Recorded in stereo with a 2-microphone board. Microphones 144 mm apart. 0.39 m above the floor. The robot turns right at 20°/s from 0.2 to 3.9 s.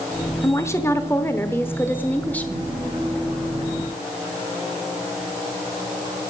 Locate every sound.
0.4 s a woman speaking: 20° left (ahead or behind), 0.9 m; by 2.6 s 10° left (ahead or behind), 0.9 m